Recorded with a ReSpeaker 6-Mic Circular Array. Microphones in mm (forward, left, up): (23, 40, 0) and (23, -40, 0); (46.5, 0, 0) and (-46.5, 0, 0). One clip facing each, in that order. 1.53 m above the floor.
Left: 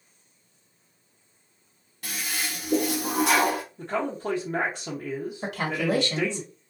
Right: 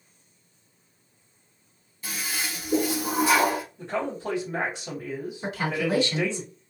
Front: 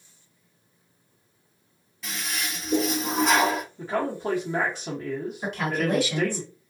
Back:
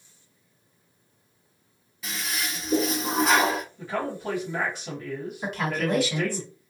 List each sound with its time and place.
2.0 s a toilet flushing: 90° left, 1.1 m
3.8 s a man speaking: 50° left, 1.0 m
5.4 s a woman speaking: 95° left, 1.6 m